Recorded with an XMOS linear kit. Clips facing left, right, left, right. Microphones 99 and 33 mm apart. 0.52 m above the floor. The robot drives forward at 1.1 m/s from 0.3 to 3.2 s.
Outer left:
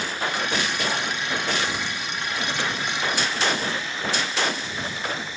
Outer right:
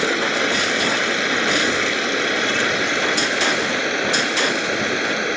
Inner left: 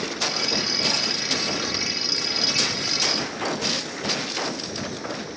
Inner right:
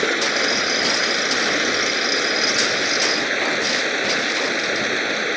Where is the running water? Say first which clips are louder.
Outer right 7 dB, inner right 7 dB; 80° right; by 5.4 s 70° right (ahead or behind).